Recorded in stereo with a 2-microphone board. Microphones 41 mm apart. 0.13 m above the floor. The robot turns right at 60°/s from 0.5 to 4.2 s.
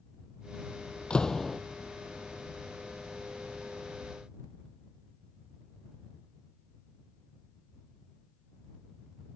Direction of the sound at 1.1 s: 155° left.